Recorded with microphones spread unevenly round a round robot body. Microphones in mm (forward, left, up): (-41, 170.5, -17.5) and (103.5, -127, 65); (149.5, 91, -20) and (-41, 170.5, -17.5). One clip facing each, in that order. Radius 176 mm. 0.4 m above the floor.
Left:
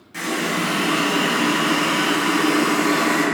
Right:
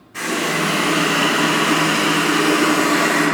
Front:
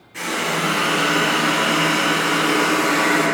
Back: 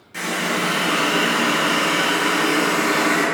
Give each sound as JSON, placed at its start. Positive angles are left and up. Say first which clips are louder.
{"t": 0.1, "sound": "a running tap", "louder": "right 2 dB, even", "azimuth_deg": 160, "distance_m": 1.4}